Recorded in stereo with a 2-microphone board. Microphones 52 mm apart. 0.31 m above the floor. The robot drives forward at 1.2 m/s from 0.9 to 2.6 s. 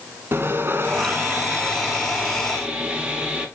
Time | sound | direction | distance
0.3 | sawing | 45° right (ahead or behind) | 1.2 m